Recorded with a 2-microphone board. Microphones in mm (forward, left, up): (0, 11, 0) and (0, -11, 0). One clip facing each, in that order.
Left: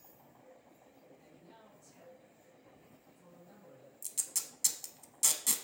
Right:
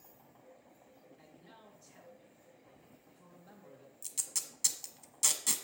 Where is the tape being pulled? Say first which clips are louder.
Even; 10° right (ahead or behind), 0.9 m.